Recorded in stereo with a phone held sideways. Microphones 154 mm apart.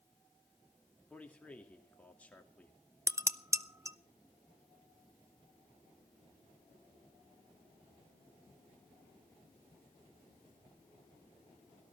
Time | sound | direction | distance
1.1 | a man speaking | 10° left (ahead or behind) | 2.5 m
3.1 | dishes clattering | 20° right (ahead or behind) | 0.6 m